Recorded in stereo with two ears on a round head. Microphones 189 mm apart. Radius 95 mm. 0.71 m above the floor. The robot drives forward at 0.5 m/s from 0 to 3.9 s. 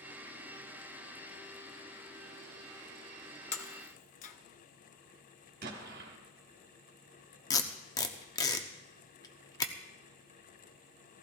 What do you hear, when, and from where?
3.5 s breaking glass: 35° left (ahead or behind), 1.0 m; by 4.3 s 40° left (ahead or behind), 0.9 m
5.6 s an explosion: 50° right (ahead or behind), 1.9 m
7.5 s tape being pulled: 15° left (ahead or behind), 0.7 m